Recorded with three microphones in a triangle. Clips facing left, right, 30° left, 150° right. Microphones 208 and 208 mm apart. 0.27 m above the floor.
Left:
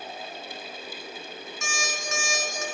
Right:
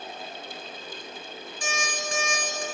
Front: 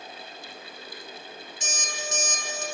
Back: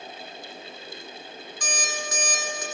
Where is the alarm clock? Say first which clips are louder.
Right 3 dB, back 4 dB; 35° right, 1.5 m.